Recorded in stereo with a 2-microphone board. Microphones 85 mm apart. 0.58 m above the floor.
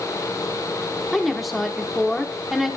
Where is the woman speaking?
Centre (ahead or behind), 1.1 m.